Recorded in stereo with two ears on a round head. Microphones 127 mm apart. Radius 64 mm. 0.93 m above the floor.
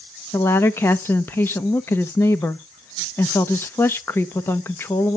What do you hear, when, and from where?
0.3 s a woman speaking: 15° left (ahead or behind), 0.6 m